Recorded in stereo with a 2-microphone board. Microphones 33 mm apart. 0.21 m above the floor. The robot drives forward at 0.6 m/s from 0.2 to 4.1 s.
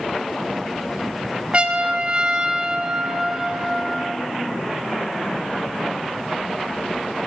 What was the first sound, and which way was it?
A trumpet, 40° right (ahead or behind).